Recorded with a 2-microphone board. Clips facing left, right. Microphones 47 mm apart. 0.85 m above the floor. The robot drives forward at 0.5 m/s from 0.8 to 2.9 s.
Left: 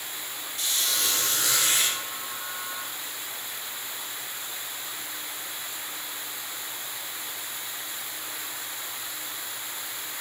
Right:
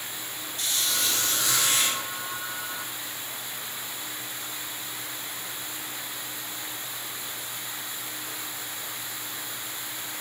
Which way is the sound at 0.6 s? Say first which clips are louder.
Even; 80° left.